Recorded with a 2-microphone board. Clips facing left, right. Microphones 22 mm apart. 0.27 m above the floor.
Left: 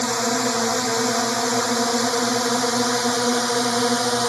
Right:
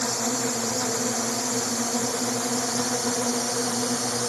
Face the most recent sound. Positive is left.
turn(degrees=75)  # may be behind; listen again after turning